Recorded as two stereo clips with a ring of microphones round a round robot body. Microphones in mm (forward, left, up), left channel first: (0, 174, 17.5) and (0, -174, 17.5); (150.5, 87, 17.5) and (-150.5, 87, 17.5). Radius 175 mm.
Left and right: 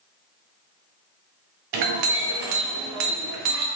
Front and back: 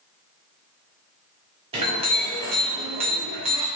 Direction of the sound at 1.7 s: 110° right.